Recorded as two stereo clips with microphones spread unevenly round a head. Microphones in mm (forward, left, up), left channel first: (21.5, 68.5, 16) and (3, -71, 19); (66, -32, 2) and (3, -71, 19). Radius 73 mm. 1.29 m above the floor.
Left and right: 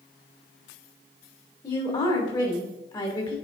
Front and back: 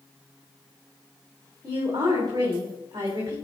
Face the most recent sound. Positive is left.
turn(degrees=145)